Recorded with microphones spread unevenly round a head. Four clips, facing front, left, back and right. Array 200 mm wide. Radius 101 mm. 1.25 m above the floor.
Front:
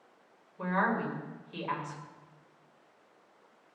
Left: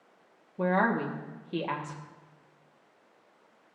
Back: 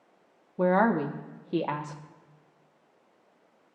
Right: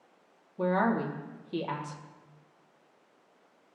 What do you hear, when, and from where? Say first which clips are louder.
0.6 s a woman speaking: left 1 dB, back 7 dB; 175° left, 1.2 m